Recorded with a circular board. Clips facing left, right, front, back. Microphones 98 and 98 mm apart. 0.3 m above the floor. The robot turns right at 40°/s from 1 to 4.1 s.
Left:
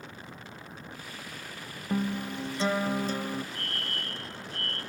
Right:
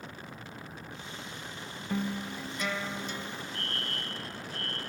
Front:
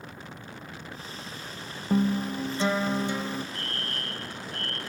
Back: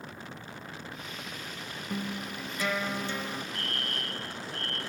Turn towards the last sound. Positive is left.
turn(degrees=-30)